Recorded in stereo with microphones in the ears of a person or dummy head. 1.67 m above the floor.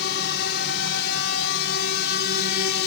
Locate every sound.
0.0 s a drone: 65° left (ahead or behind); by 2.9 s 60° left (ahead or behind)